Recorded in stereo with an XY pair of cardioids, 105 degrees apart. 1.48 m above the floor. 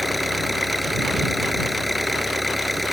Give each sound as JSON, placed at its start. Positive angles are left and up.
{"t": 0.0, "sound": "an engine running", "azimuth_deg": 5}